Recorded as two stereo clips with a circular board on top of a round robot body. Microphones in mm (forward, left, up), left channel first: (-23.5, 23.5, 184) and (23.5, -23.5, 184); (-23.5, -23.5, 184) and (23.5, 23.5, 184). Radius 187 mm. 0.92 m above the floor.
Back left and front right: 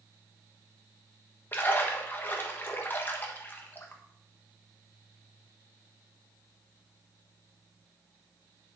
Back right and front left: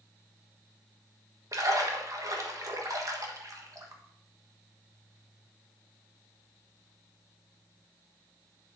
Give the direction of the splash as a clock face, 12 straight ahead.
9 o'clock.